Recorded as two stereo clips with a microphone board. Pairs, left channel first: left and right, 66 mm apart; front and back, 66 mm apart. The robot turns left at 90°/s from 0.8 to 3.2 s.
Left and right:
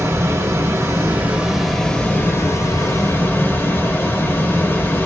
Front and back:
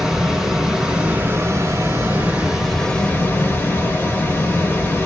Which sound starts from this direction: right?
Running water, at 0.0 s.